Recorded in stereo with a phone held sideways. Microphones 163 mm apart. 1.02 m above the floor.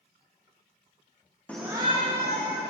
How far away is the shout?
About 0.6 m.